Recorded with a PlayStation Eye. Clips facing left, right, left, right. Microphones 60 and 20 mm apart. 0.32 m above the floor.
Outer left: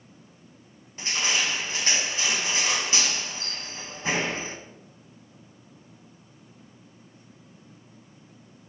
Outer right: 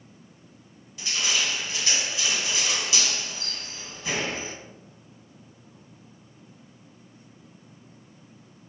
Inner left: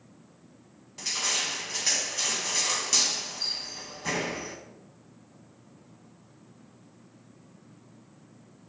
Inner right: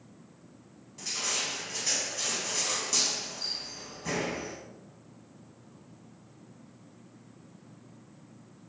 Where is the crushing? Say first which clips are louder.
Outer left 1 dB, inner left 3 dB; 40° left (ahead or behind), 2 m.